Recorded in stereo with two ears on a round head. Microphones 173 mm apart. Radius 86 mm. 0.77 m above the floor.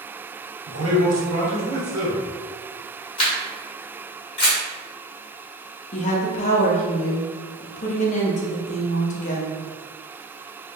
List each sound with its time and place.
0.7 s a man speaking: 75° right (ahead or behind), 1.7 m
3.2 s a camera shutter: 30° left (ahead or behind), 1.8 m
5.9 s a woman speaking: 40° left (ahead or behind), 0.7 m